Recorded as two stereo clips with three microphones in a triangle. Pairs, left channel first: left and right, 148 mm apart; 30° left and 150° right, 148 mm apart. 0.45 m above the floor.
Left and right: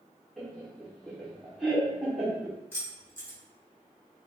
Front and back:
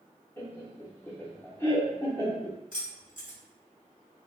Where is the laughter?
Straight ahead, 0.7 m.